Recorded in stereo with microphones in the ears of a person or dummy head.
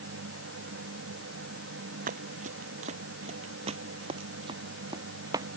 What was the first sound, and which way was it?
A machine running, 85° right.